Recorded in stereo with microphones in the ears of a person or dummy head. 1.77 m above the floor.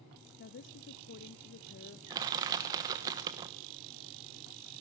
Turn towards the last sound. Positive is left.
turn(degrees=-20)  # may be behind; listen again after turning